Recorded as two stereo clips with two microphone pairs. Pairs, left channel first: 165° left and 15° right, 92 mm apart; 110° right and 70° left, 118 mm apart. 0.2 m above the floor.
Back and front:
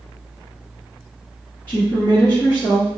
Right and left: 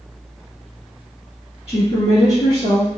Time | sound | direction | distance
1.7 | a woman speaking | 130° right | 2 m